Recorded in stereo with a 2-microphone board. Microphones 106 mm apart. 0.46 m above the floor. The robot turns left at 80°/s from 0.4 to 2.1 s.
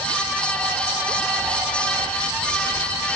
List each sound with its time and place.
Only background noise.